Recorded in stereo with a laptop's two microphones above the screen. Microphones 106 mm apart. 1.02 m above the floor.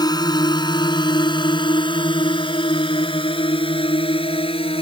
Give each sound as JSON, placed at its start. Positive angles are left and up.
{"t": 0.0, "sound": "a drone", "side_deg": 40}